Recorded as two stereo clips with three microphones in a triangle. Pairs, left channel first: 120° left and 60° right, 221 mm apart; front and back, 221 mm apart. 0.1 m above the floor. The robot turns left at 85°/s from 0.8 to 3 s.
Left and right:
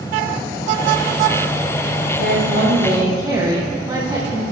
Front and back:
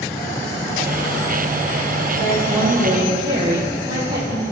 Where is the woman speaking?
60° right, 4 m; by 4.4 s 130° right, 4 m.